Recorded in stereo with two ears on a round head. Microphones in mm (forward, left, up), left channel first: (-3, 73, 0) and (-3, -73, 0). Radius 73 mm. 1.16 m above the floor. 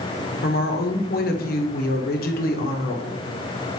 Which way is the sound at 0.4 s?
60° left (ahead or behind).